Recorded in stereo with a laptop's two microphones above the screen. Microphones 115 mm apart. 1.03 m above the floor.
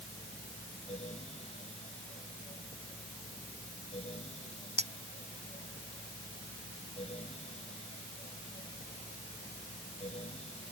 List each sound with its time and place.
0.0 s a fan: 65° left (ahead or behind)
4.8 s a clink: 85° right